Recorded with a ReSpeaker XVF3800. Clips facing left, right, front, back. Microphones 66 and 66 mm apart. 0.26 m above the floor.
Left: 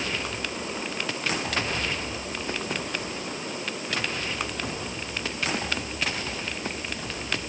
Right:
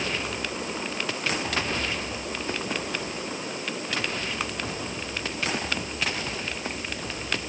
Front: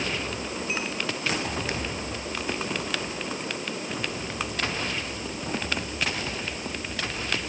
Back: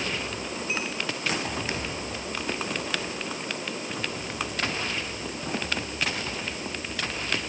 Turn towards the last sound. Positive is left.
No sound to turn to.